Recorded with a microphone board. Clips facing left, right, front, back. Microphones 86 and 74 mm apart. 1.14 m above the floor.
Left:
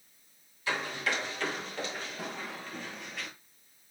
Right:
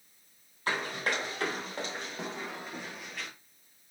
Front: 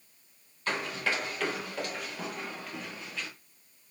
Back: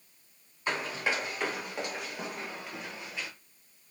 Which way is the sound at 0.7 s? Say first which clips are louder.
Right 1 dB, even; 110° right.